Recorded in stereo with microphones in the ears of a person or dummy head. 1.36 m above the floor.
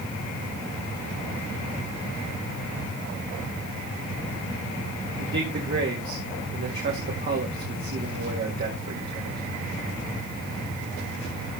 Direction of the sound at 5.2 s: 50° right (ahead or behind).